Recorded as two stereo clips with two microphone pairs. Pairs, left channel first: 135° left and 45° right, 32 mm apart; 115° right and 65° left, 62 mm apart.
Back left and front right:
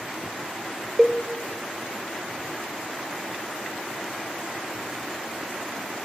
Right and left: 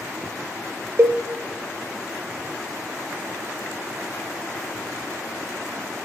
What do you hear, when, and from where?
1.0 s a cowbell: 20° left, 0.5 m